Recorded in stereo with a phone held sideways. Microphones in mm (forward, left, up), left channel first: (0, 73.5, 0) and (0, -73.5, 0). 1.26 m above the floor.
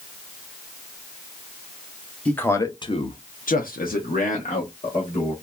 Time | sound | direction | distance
2.2 | a man speaking | 10° left (ahead or behind) | 0.8 m